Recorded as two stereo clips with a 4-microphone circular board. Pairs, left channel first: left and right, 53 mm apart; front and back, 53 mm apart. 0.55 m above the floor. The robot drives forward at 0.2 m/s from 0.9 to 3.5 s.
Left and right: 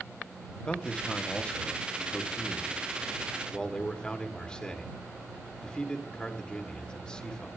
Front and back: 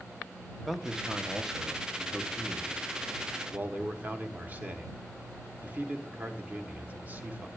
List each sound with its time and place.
0.6 s a man speaking: 100° left, 1.0 m; by 7.5 s 150° left, 1.2 m